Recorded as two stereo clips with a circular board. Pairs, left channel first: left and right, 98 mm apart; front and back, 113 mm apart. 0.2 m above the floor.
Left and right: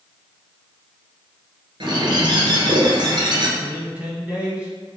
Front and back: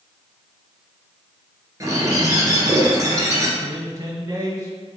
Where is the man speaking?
155° right, 1.7 m.